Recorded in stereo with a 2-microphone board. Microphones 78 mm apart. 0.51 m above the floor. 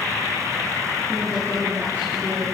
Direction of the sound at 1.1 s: 25° right (ahead or behind).